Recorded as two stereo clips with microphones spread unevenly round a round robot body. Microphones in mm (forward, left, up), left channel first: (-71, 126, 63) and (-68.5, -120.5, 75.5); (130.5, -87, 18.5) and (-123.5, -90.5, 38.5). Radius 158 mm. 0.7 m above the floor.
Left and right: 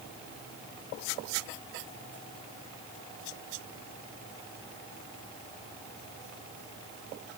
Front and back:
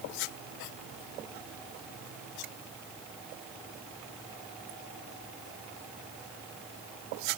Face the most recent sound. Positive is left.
No sound to turn to.